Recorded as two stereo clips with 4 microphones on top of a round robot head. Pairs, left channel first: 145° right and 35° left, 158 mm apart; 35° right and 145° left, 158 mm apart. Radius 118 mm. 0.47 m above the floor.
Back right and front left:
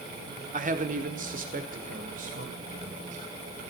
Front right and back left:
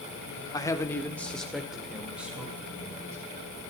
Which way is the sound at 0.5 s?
30° left.